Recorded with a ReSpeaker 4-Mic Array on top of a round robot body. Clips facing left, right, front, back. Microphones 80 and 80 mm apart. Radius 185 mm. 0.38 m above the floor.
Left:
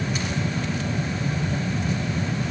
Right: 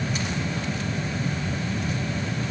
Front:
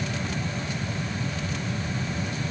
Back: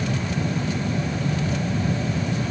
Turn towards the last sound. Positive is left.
No sound to turn to.